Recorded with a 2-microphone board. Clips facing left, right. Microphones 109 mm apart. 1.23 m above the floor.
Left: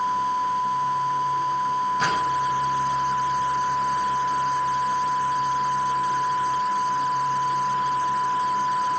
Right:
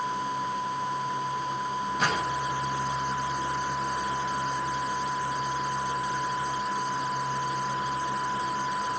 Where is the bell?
No bell in this recording.